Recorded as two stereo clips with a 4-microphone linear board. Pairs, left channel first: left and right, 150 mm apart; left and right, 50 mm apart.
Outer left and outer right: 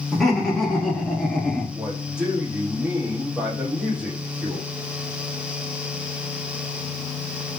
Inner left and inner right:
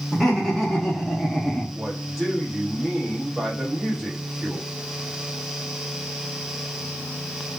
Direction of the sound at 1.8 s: 5° right (ahead or behind).